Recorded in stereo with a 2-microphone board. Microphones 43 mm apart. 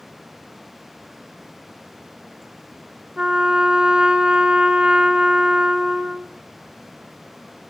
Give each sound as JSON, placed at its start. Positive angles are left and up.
{"t": 3.2, "sound": "a trumpet", "side_deg": -25, "distance_m": 0.7}